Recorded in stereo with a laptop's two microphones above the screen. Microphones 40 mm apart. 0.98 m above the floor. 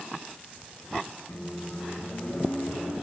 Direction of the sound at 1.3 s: 65° left (ahead or behind).